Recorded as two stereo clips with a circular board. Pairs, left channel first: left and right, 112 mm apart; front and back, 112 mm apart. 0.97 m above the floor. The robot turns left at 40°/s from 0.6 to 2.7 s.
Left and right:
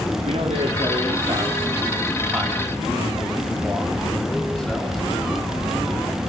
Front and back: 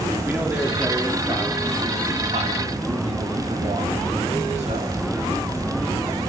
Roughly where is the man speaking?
Right.